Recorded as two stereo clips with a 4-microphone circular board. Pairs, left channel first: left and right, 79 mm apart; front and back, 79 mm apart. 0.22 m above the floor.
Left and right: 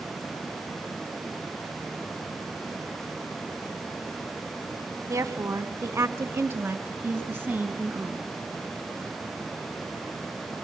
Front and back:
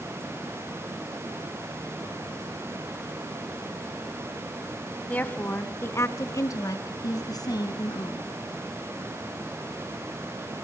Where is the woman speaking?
65° right, 1.3 m; by 8.3 s 20° right, 3 m.